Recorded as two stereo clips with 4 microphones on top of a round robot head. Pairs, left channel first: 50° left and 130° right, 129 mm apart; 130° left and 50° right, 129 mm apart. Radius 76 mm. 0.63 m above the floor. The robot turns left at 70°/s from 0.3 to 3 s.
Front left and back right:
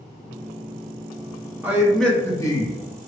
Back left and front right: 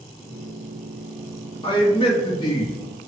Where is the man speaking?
160° left, 1.2 m; by 2.8 s 80° left, 1.2 m.